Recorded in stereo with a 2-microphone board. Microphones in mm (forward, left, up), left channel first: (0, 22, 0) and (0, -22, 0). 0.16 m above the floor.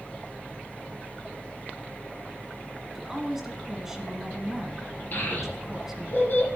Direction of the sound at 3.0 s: 10° right (ahead or behind).